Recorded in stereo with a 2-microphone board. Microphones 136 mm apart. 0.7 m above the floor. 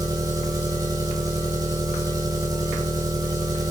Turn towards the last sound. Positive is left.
turn(degrees=-25)  # may be behind; listen again after turning